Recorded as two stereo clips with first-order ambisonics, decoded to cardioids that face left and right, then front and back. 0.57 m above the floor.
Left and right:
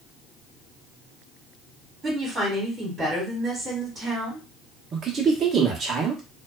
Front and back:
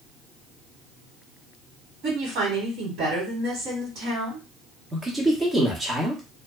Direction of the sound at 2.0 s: 155° right.